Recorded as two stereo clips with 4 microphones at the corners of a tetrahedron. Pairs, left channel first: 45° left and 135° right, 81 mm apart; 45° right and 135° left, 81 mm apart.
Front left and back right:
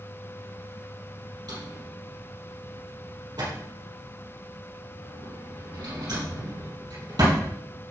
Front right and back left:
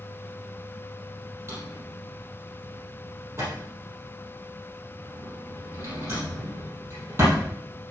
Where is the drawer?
165° right, 4 m.